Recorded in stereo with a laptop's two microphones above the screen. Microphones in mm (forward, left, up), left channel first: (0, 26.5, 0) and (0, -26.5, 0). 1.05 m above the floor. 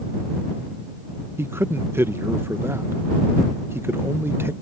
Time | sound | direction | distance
1.4 | a man speaking | 50° right (ahead or behind) | ?